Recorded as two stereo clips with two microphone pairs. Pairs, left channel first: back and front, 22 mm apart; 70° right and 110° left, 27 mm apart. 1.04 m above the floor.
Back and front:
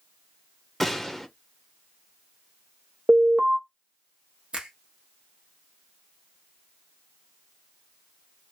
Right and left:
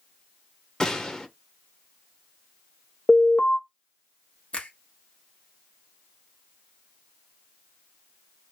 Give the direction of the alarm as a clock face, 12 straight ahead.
1 o'clock.